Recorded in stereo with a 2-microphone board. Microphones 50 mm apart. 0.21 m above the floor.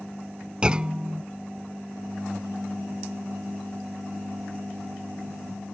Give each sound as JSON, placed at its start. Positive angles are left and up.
{"t": 0.6, "sound": "a clunk", "side_deg": -20}